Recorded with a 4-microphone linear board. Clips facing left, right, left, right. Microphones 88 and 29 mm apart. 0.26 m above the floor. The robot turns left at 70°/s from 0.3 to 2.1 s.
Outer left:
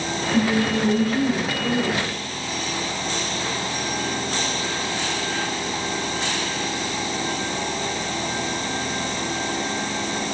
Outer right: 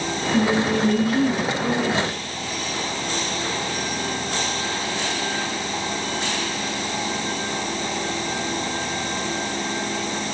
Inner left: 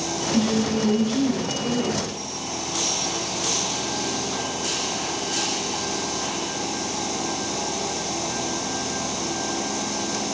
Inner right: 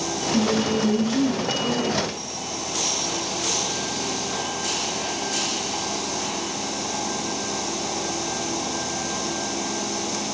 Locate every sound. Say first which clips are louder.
0.3 s a woman speaking: outer right 1 dB, inner right 1 dB; straight behind, 1.4 m; by 2.0 s 60° left, 1.4 m